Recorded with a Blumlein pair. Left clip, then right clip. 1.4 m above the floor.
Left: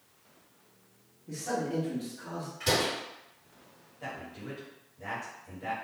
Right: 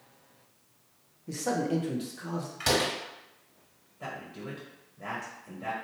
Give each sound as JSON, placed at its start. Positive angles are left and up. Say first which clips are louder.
{"t": 1.3, "sound": "a man speaking", "louder": "right 3 dB", "azimuth_deg": -70, "distance_m": 0.7}
{"t": 2.6, "sound": "a door slam", "louder": "right 1 dB", "azimuth_deg": -40, "distance_m": 1.7}
{"t": 4.0, "sound": "a man speaking", "louder": "right 1 dB", "azimuth_deg": -25, "distance_m": 1.1}